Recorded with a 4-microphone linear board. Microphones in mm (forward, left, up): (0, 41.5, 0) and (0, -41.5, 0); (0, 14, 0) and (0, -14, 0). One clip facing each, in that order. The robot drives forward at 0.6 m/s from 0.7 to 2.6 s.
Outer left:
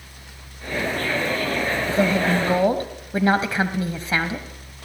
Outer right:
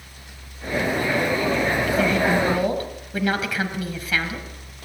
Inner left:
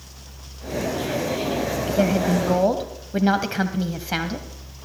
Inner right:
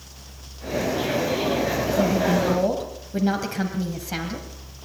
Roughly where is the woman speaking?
Left.